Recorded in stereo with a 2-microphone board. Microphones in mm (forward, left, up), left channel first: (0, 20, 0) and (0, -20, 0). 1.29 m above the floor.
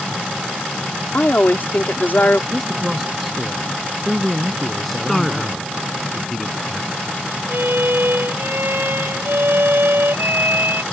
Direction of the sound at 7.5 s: 70° right (ahead or behind).